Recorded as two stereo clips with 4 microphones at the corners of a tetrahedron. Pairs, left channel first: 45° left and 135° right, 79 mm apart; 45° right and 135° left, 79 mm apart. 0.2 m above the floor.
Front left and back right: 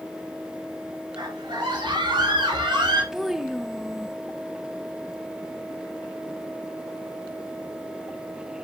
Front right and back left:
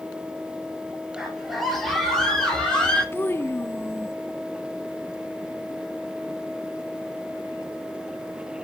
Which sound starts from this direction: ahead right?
A child speaking, at 3.1 s.